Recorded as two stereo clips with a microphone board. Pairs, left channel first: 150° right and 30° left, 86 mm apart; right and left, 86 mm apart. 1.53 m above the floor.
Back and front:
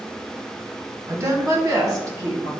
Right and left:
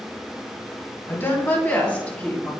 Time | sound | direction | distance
1.1 | a woman speaking | 30° right | 1.3 m